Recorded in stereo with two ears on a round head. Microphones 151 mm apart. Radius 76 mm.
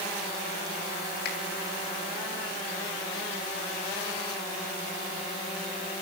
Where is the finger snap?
65° left (ahead or behind), 3.5 m.